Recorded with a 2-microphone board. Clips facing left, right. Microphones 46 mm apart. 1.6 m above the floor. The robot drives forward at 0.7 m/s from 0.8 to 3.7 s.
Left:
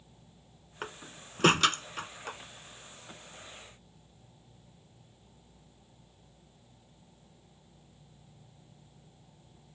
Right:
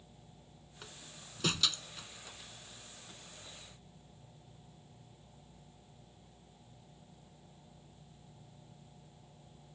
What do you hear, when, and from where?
0.8 s a door slam: 45° left (ahead or behind); by 2.4 s 50° left (ahead or behind)